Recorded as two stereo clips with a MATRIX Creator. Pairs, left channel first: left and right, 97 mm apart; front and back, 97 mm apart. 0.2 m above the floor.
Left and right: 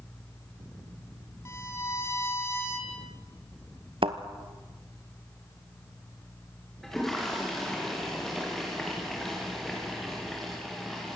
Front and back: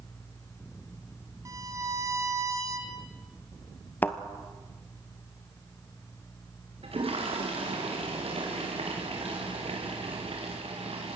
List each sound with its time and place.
1.4 s a violin: 140° left, 2 m
4.0 s a thud: 70° right, 1.1 m
6.8 s a toilet flushing: 175° left, 4.5 m